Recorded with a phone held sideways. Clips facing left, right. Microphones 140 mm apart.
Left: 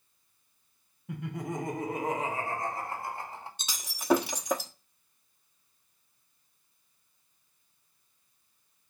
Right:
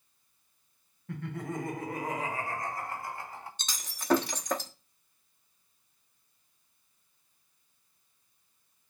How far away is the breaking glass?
About 1.1 m.